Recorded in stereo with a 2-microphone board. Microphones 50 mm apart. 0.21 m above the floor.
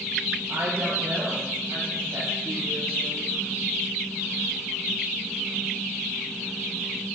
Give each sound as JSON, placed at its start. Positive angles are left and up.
{"t": 0.5, "sound": "a woman speaking", "side_deg": -60, "distance_m": 4.0}